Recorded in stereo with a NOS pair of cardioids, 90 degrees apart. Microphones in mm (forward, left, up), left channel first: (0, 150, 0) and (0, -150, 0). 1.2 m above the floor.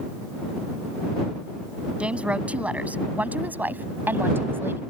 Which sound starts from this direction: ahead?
A woman speaking, at 2.0 s.